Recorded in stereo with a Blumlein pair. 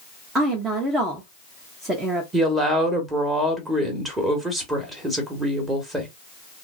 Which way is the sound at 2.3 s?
10° right.